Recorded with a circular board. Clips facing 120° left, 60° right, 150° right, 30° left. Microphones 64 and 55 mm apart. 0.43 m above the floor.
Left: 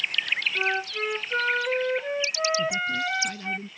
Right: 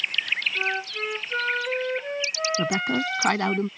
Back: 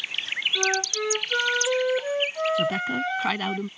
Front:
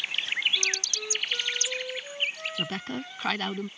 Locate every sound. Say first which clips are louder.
0.6 s a flute: left 1 dB, back 7 dB; 155° right
2.6 s a woman speaking: right 2 dB, back 8 dB; 65° right